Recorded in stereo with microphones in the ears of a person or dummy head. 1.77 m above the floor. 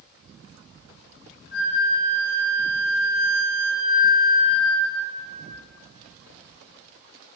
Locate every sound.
1.5 s a flute: 50° left (ahead or behind), 3 m